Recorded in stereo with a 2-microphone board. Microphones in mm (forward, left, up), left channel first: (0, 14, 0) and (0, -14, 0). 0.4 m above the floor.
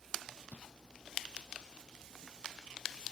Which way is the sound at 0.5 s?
70° right (ahead or behind).